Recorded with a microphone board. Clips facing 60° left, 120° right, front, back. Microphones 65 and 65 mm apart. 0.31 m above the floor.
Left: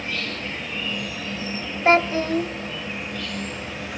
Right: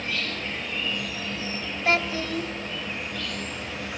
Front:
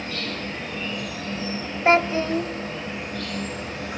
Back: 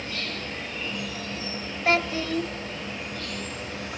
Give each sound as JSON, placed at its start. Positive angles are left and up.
{"t": 0.0, "sound": "an insect", "azimuth_deg": -25, "distance_m": 8.0}
{"t": 1.9, "sound": "a child speaking", "azimuth_deg": 35, "distance_m": 0.7}